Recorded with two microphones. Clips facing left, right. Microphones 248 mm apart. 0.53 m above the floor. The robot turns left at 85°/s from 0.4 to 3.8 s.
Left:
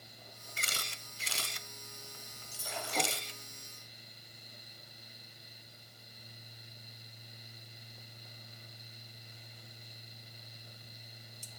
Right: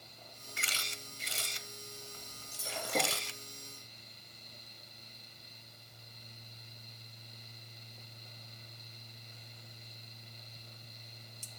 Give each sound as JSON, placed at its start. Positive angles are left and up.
{"t": 0.6, "sound": "a camera shutter", "side_deg": 35, "distance_m": 1.1}
{"t": 2.5, "sound": "breaking glass", "azimuth_deg": -15, "distance_m": 9.5}